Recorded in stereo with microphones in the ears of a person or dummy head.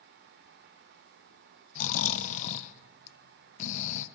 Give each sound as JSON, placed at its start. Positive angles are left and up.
{"t": 1.8, "sound": "snoring", "side_deg": 45, "distance_m": 1.1}